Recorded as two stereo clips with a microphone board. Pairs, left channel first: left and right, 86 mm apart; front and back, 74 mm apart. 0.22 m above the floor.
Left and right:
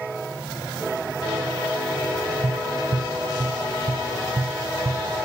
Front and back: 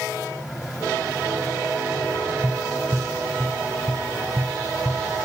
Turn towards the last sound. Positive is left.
turn(degrees=-130)